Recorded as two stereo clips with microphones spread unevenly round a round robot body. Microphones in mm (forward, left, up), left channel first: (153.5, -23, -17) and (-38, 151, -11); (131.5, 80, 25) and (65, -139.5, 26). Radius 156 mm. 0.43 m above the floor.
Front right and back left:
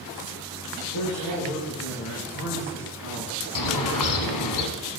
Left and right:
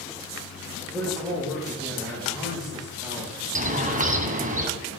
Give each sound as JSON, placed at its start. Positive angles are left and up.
{"t": 0.9, "sound": "a man speaking", "azimuth_deg": -15, "distance_m": 8.0}
{"t": 3.5, "sound": "a bird", "azimuth_deg": -50, "distance_m": 2.0}